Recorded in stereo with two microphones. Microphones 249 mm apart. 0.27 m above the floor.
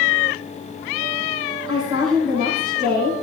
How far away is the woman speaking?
About 8 m.